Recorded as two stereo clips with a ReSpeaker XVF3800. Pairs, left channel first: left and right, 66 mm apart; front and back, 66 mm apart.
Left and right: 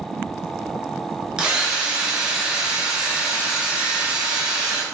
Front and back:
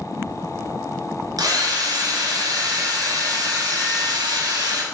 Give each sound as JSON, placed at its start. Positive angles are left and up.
{"t": 1.4, "sound": "a drill", "azimuth_deg": -170, "distance_m": 2.0}